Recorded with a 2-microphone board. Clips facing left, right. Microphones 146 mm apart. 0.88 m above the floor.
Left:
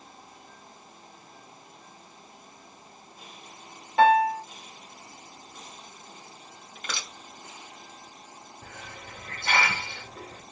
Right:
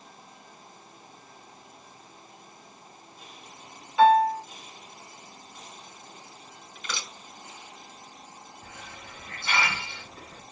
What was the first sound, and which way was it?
A piano, 65° left (ahead or behind).